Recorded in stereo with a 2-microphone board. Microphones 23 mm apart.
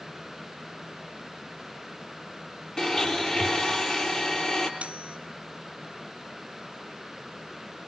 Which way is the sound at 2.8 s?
30° left (ahead or behind).